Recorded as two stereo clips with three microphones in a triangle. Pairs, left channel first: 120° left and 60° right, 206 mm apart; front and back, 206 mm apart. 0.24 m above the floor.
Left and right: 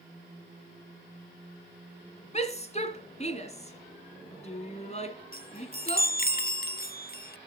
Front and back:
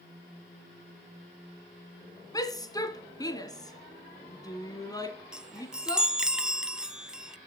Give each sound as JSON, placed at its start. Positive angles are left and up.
{"t": 2.3, "sound": "a shout", "azimuth_deg": 70, "distance_m": 2.0}
{"t": 5.3, "sound": "a chime", "azimuth_deg": 95, "distance_m": 0.5}